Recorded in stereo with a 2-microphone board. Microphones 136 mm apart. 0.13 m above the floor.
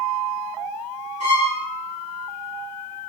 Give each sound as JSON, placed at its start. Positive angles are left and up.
{"t": 1.2, "sound": "a violin", "side_deg": -65, "distance_m": 6.5}